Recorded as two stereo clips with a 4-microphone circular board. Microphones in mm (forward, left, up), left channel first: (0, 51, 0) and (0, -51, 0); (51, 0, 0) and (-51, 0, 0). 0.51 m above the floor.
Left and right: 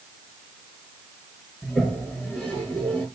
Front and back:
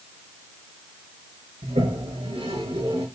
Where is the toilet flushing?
175° left, 6 m.